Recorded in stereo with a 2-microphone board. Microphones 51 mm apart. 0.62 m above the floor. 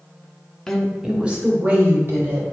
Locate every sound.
0.7 s a woman speaking: 10° left (ahead or behind), 1.0 m; by 2.4 s 45° right (ahead or behind), 2.5 m